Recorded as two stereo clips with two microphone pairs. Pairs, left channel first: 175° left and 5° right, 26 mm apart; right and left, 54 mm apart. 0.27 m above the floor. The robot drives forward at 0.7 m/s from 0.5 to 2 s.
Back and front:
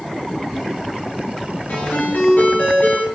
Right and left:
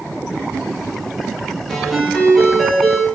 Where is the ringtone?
175° right, 3.5 m.